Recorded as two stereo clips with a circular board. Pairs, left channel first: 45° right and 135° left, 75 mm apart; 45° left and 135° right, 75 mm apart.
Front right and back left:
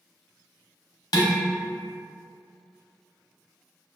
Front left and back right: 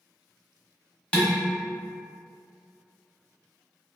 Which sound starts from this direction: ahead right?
Dishes clattering, at 1.1 s.